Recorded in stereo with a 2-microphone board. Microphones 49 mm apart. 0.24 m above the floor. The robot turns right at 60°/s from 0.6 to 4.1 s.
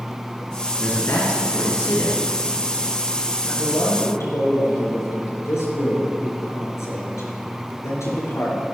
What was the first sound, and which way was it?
A man speaking, 45° left.